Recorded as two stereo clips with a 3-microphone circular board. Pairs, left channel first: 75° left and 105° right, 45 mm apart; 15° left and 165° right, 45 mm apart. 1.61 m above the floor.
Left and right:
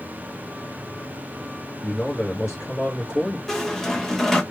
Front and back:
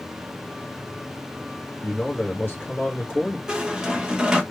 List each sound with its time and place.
1.8 s a man speaking: 55° left, 1.3 m
3.5 s a squeak: 145° left, 0.7 m